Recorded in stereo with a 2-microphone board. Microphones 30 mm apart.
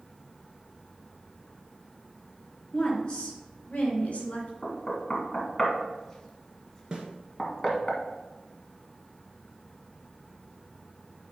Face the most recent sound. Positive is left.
turn(degrees=-25)  # may be behind; listen again after turning